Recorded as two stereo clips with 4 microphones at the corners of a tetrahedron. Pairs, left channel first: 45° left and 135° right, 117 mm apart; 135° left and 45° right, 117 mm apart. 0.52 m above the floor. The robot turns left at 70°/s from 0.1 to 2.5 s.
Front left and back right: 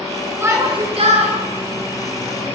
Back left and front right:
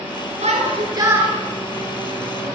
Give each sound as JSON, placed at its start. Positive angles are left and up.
{"t": 0.4, "sound": "a shout", "azimuth_deg": -60, "distance_m": 9.0}